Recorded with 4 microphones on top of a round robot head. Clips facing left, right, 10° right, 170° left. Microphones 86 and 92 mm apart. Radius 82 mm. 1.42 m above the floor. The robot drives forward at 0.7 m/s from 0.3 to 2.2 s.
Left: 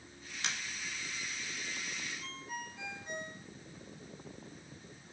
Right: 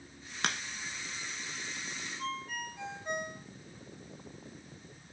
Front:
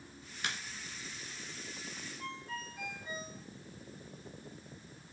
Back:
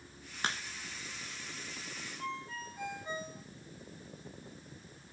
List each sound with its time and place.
0.4 s a crack: 120° right, 1.1 m; by 0.6 s 125° right, 1.1 m
2.2 s a ringtone: 120° right, 3 m